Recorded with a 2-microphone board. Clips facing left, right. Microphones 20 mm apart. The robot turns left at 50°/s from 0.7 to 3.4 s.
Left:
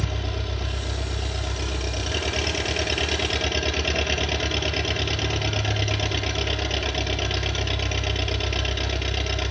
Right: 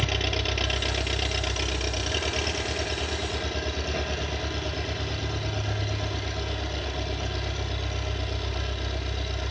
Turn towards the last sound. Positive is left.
turn(degrees=115)